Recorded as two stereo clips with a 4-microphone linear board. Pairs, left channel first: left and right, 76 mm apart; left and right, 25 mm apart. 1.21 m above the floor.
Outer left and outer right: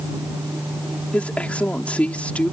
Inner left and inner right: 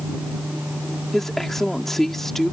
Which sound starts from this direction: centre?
A woman speaking, at 1.1 s.